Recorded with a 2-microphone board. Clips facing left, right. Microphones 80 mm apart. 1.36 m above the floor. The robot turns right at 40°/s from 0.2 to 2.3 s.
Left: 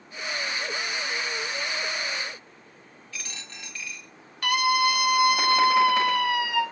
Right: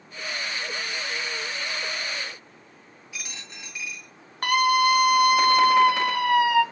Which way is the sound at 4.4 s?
40° right (ahead or behind).